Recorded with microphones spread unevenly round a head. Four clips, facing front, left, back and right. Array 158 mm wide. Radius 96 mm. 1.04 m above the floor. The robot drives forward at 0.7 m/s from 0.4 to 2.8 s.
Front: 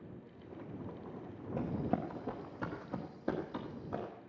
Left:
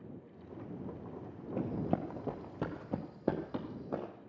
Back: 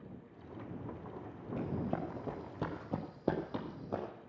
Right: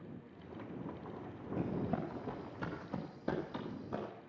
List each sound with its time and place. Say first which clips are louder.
1.6 s running footsteps: left 3 dB, front 2 dB; 45° left, 1.5 m; by 4.1 s 130° left, 2 m